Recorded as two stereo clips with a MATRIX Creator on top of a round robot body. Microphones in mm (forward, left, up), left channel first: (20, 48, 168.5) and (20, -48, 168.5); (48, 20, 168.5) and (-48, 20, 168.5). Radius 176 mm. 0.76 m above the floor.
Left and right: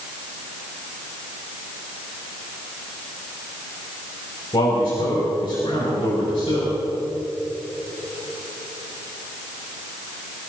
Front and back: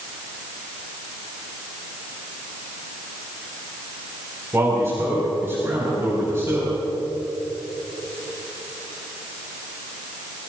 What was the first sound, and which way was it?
A man speaking, 120° left.